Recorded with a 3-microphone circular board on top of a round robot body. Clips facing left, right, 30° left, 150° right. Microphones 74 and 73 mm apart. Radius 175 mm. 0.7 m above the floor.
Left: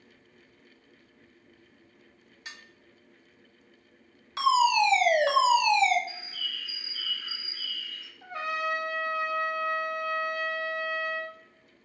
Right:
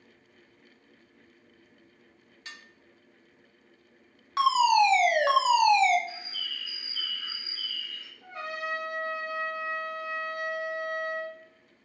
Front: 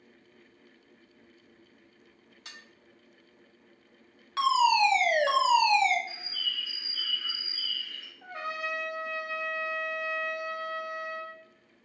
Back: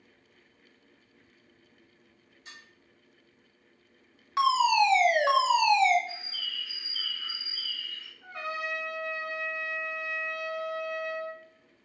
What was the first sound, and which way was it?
Dishes clattering, 15° left.